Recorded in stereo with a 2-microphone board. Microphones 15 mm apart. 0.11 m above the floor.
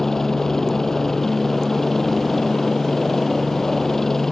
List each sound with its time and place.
0.0 s a helicopter: 25° left (ahead or behind)